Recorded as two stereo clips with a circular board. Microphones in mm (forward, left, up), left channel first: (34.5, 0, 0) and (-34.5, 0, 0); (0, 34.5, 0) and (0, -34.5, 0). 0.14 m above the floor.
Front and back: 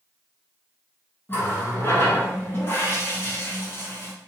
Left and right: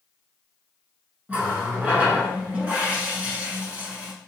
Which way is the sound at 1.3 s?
30° right.